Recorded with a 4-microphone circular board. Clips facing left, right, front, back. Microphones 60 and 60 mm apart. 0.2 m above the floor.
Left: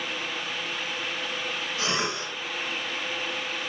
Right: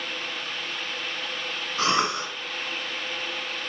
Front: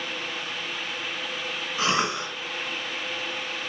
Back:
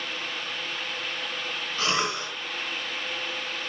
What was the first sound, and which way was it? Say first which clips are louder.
A cough: right 7 dB, front 2 dB; 70° right.